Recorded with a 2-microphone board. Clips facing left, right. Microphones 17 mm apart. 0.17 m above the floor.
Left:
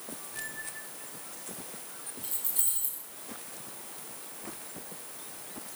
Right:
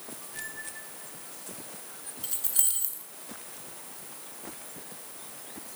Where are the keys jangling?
55° right (ahead or behind), 1.4 m.